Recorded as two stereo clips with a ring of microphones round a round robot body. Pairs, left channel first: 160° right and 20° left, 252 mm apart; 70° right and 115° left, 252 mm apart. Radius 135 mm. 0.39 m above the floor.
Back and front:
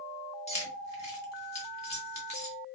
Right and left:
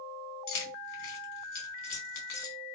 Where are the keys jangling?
95° right, 1.3 m.